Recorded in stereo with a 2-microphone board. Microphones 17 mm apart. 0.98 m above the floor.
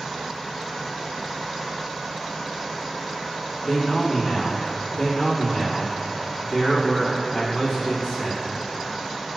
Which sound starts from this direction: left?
A man speaking, at 3.6 s.